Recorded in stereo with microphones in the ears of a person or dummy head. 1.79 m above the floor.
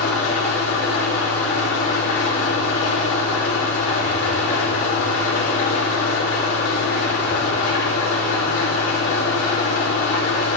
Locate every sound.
0.0 s an engine running: 80° left, 3 m